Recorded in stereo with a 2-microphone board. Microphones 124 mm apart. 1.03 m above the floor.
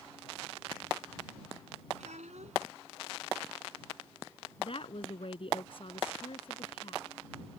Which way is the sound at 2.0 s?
85° right.